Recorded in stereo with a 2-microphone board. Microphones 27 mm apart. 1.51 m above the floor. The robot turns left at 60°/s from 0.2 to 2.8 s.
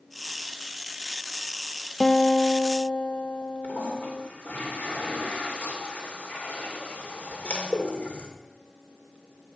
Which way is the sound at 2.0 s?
150° left.